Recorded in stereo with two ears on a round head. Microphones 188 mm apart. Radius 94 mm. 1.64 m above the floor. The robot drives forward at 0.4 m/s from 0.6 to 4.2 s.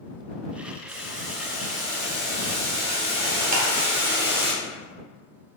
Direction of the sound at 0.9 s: 20° right (ahead or behind).